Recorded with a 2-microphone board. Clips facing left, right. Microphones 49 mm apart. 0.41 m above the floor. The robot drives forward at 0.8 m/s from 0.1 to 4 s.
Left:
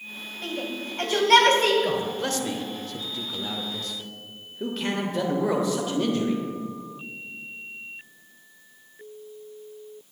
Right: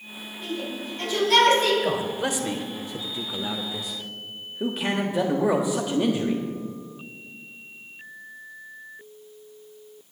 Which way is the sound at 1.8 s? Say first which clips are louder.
Right 1 dB; 10° right (ahead or behind).